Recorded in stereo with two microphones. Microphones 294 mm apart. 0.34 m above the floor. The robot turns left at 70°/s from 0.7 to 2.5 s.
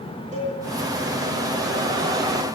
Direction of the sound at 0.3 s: 25° right (ahead or behind).